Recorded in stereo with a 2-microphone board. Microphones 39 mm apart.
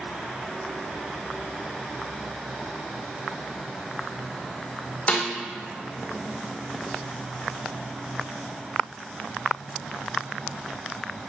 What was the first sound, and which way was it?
A snare drum, 35° left (ahead or behind).